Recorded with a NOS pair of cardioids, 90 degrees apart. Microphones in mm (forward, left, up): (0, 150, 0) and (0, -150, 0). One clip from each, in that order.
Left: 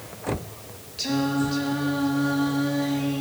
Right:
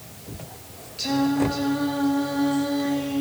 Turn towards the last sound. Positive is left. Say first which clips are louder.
# right 2 dB
turn(degrees=15)